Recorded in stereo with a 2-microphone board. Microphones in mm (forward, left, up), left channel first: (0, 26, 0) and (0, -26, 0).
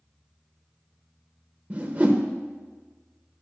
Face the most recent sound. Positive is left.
turn(degrees=-25)  # may be behind; listen again after turning